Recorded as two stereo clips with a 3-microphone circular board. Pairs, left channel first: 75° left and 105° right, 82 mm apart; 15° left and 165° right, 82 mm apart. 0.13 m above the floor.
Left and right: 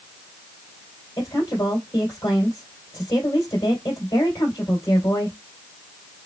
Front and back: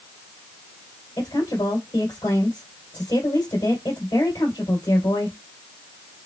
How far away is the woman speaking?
About 3 m.